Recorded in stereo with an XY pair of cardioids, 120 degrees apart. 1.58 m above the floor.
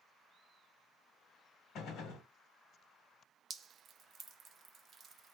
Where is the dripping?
40° right, 0.6 m.